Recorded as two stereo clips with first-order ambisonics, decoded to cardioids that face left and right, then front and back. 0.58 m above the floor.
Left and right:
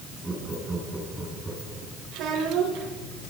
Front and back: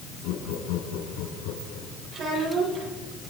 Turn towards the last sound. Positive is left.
turn(degrees=-125)